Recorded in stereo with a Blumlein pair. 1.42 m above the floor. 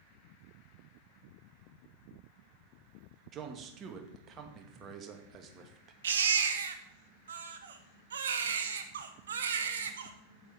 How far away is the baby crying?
About 1.3 m.